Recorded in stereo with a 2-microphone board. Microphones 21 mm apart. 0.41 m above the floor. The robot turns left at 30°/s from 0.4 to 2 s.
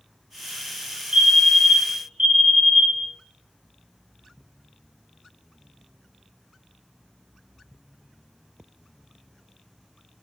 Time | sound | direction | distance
1.1 | a fire alarm | 45° right (ahead or behind) | 2.5 m